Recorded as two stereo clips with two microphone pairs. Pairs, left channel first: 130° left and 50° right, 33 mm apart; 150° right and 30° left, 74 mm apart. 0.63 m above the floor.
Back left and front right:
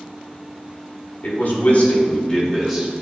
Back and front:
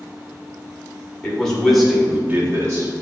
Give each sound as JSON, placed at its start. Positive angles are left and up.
{"t": 1.2, "sound": "a man speaking", "azimuth_deg": 130, "distance_m": 2.0}